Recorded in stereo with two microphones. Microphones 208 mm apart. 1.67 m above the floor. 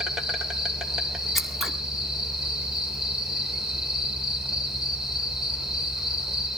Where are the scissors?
Centre (ahead or behind), 2 m.